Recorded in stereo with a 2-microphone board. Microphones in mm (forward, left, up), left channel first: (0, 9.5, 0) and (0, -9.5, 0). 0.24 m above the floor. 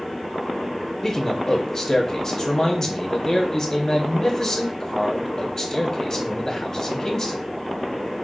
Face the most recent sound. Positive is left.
turn(degrees=25)  # may be behind; listen again after turning